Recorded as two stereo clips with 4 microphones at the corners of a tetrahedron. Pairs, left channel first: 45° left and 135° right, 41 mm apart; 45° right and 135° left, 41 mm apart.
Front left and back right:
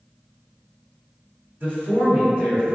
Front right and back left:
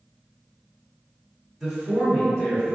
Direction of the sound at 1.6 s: 130° right.